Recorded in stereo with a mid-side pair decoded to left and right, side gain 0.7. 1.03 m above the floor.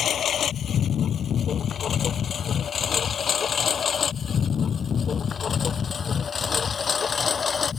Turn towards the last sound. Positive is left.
turn(degrees=25)